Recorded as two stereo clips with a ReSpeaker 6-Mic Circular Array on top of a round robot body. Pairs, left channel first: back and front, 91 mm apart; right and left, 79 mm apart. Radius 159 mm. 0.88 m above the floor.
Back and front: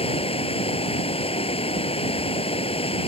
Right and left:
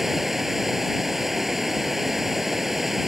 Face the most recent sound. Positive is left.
turn(degrees=175)